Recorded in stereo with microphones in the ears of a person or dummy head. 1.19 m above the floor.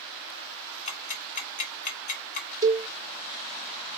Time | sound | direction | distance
0.9 | ticking | 40° left (ahead or behind) | 2 m
2.6 | a cowbell | 20° right (ahead or behind) | 0.6 m